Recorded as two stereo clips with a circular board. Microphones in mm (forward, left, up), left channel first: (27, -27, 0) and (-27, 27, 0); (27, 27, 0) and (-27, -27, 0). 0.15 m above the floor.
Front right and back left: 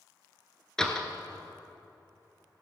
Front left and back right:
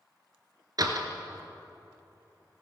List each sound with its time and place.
0.8 s a door slam: 125° right, 1.3 m